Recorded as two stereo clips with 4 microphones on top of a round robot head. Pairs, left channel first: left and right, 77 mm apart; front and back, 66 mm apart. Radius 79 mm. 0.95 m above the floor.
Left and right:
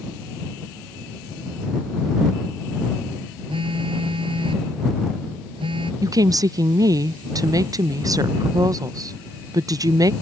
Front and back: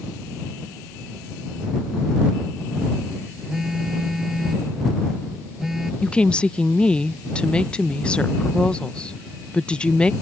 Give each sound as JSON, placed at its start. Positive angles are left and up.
{"t": 3.5, "sound": "a phone buzzing", "azimuth_deg": -95}
{"t": 6.0, "sound": "a woman speaking", "azimuth_deg": -70}